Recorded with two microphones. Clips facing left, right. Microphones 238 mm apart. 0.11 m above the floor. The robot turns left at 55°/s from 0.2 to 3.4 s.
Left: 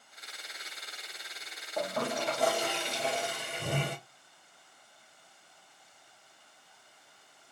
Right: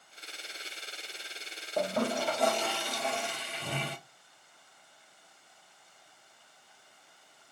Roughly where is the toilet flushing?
Behind right.